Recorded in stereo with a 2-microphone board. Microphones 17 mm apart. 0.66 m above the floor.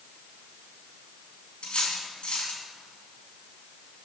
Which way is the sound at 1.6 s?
75° left (ahead or behind).